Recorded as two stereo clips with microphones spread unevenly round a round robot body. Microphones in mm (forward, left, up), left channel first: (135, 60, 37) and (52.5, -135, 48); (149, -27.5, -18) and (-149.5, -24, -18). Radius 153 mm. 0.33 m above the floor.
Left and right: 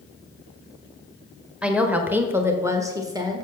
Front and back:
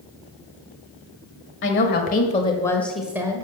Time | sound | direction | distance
1.6 | a woman speaking | 30° right | 1.5 m